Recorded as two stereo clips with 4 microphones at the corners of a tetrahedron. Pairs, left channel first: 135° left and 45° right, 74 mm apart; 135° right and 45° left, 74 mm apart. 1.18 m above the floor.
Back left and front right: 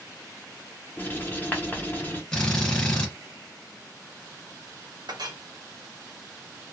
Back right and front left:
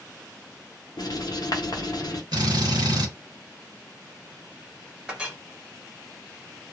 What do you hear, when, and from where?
1.0 s writing: 160° right, 0.7 m
2.3 s a drill: 60° left, 1.4 m
5.1 s a clink: 30° right, 0.6 m